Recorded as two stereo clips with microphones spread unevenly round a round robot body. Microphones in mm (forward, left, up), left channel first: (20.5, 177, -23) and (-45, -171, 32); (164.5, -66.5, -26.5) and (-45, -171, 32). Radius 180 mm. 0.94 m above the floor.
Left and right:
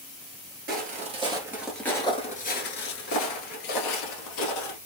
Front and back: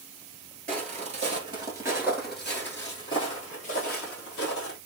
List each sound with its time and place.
0.7 s footsteps: 145° right, 1.2 m; by 4.8 s 85° left, 1.6 m